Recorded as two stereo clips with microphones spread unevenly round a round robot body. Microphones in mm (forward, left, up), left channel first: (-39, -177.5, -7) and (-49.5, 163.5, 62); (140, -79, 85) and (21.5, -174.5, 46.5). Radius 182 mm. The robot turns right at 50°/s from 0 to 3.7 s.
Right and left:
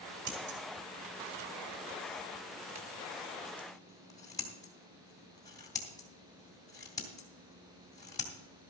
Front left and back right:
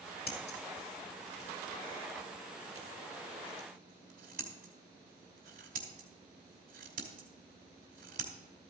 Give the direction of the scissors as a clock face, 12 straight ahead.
11 o'clock.